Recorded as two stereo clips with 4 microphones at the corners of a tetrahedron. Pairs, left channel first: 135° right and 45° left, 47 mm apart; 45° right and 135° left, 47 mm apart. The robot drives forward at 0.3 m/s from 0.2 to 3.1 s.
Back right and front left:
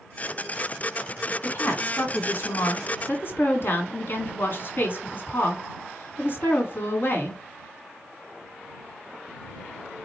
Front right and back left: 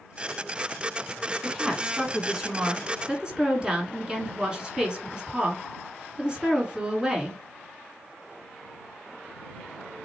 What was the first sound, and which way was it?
A woman speaking, 140° right.